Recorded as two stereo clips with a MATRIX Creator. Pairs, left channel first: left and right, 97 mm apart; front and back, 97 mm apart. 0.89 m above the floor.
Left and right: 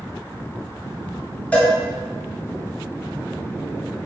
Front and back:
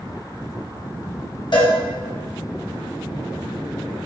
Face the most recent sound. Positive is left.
turn(degrees=15)